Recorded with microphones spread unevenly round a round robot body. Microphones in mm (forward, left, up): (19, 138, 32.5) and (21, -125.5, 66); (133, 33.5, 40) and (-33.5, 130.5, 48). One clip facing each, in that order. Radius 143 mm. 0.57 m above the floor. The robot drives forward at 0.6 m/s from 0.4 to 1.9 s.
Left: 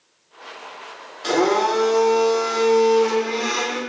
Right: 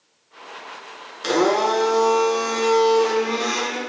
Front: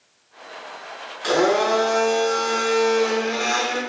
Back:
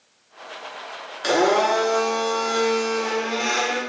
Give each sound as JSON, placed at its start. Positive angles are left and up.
{"t": 1.2, "sound": "a blender", "azimuth_deg": -150, "distance_m": 0.7}